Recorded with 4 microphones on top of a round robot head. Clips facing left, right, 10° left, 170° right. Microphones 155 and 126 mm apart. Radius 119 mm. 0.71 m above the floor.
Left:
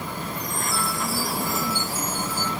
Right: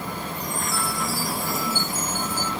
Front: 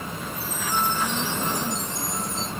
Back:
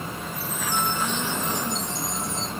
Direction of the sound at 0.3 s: 135° right.